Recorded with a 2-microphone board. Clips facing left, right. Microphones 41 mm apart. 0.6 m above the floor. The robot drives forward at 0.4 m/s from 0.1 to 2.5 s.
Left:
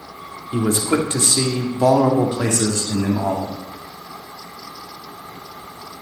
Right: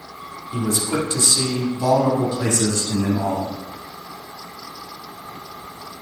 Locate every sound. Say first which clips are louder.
0.5 s a man speaking: left 4 dB; 40° left (ahead or behind), 1.2 m; by 3.5 s 45° left (ahead or behind), 1.1 m